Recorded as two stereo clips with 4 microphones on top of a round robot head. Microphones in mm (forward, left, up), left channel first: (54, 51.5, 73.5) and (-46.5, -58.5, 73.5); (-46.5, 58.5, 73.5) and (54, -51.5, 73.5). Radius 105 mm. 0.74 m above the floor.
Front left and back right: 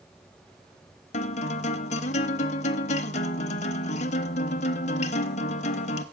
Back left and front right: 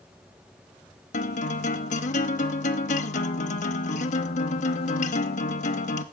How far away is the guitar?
About 0.8 m.